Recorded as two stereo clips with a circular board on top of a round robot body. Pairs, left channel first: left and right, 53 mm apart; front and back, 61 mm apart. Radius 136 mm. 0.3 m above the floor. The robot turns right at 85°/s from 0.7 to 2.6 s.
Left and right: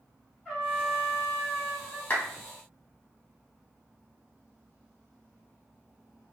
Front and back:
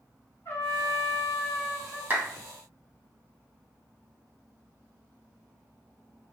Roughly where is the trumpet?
Ahead.